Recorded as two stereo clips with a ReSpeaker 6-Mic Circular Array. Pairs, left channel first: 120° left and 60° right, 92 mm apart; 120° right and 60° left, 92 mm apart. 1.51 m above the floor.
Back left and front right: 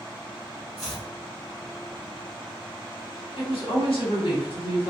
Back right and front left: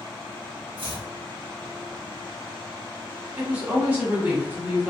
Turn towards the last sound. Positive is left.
turn(degrees=135)